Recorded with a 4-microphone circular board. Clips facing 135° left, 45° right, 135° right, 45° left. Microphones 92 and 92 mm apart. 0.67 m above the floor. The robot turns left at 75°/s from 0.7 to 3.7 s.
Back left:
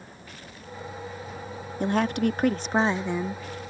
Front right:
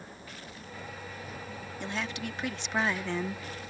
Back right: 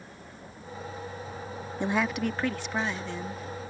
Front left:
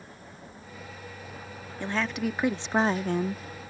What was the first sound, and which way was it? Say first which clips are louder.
A woman speaking: back left 13 dB, back right 2 dB; 160° left.